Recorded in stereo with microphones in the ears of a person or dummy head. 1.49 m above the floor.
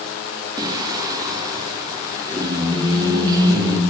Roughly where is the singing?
Centre.